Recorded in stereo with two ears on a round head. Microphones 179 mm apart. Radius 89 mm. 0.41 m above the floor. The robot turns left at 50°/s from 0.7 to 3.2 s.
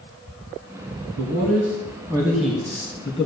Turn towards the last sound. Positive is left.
turn(degrees=145)